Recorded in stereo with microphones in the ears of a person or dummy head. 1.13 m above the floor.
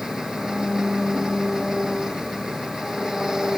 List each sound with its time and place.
0.0 s an engine running: 5° right (ahead or behind)